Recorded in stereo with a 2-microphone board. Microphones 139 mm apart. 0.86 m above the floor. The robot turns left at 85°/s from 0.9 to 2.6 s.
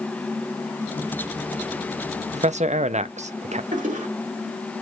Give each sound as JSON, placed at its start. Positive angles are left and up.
{"t": 2.3, "sound": "a man speaking", "side_deg": -50, "distance_m": 0.6}
{"t": 3.7, "sound": "a toilet flushing", "side_deg": -65, "distance_m": 2.0}